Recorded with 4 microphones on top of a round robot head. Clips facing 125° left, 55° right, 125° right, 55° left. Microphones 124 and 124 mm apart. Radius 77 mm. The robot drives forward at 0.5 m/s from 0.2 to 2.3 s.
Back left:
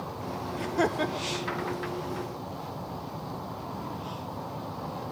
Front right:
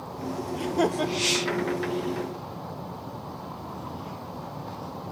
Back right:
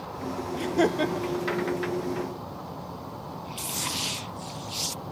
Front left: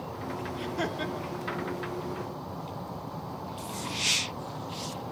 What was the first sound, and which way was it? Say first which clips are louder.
Laughter: front right 2 dB, back right 11 dB; 120° right.